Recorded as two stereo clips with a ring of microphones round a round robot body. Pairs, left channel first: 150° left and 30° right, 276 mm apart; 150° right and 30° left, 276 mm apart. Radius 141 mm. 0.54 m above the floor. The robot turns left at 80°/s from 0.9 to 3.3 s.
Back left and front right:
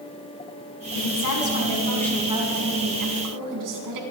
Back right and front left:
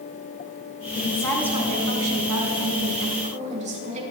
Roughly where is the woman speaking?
Behind left.